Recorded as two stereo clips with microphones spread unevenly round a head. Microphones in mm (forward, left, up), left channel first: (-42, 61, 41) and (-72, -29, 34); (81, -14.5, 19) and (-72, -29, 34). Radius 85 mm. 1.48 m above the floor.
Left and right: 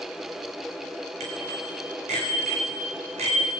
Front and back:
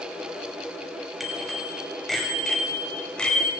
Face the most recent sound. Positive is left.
turn(degrees=-80)